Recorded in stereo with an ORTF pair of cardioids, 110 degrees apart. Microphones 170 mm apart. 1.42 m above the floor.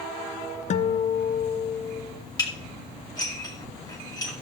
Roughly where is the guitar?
Ahead left.